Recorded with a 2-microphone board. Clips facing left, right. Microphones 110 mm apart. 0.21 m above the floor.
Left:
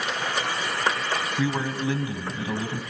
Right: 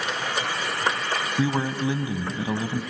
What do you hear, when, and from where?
1.4 s a man speaking: 20° right (ahead or behind), 1.1 m